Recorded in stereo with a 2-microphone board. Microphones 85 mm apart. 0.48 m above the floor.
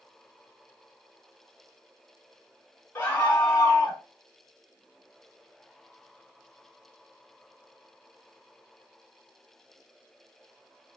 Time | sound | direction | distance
3.0 | a scream | 25° left (ahead or behind) | 1.0 m